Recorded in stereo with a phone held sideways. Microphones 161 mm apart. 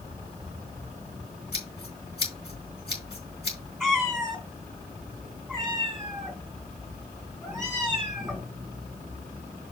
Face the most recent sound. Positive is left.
turn(degrees=0)  # may be behind; listen again after turning